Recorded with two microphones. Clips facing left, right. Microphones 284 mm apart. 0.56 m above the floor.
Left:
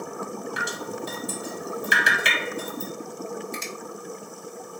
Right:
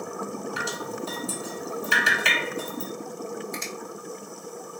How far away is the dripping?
About 1.0 m.